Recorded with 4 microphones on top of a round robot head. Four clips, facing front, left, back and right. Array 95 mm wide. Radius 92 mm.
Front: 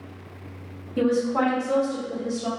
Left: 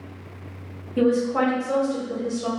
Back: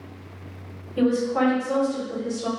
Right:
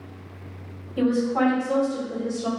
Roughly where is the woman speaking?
Ahead left.